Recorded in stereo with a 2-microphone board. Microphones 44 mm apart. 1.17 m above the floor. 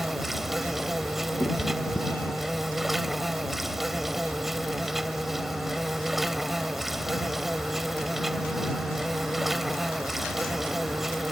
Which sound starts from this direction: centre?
An insect, at 0.0 s.